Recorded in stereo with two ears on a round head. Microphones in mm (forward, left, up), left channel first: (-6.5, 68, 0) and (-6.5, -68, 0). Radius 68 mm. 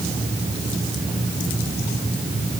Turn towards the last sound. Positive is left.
No sound to turn to.